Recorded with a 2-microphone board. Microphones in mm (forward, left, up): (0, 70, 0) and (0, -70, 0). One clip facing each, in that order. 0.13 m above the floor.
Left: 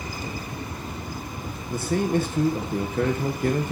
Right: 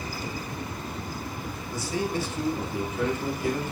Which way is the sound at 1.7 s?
55° left (ahead or behind).